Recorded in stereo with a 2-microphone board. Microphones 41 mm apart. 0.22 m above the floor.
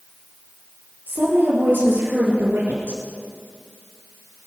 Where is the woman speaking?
45° right (ahead or behind), 4.5 m; by 3.0 s 75° right (ahead or behind), 4 m.